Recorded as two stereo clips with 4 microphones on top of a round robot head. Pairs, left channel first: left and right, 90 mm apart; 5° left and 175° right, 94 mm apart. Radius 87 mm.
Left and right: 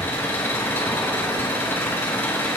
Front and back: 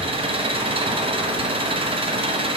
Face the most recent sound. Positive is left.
turn(degrees=160)